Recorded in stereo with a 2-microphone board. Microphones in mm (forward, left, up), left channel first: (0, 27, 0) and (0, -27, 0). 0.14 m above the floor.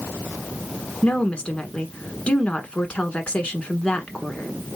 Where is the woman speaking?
20° left (ahead or behind), 1.2 m.